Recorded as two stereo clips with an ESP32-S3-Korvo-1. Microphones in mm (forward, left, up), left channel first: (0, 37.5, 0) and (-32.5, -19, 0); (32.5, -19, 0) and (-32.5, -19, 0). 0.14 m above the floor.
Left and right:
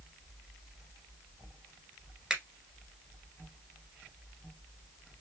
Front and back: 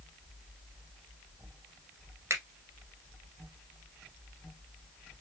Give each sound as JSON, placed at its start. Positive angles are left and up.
{"t": 2.3, "sound": "a finger snap", "azimuth_deg": 160, "distance_m": 1.8}